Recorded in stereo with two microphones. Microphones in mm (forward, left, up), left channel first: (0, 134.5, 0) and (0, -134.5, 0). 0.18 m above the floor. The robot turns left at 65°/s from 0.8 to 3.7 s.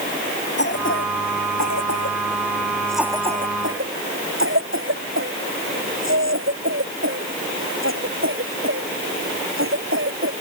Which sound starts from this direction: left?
A cough, at 0.6 s.